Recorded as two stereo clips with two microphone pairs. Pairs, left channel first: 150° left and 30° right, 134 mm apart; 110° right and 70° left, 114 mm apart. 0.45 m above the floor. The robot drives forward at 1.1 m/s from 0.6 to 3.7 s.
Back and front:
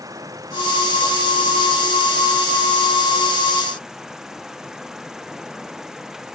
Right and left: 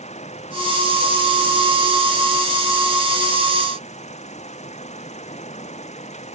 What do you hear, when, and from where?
0.0 s an insect: 95° right; by 6.3 s 115° right